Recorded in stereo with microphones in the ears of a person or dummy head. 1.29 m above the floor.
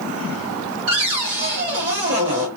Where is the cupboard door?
30° right (ahead or behind), 1.0 m.